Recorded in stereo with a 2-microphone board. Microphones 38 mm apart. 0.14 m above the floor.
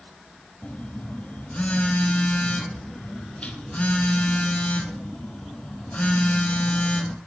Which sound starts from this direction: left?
A phone buzzing, at 0.6 s.